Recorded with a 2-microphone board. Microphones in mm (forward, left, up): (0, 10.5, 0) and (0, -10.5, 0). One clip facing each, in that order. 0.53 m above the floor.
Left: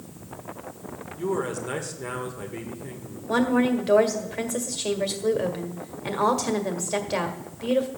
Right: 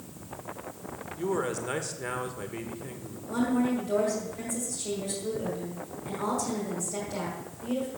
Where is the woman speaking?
60° left (ahead or behind), 1.7 m.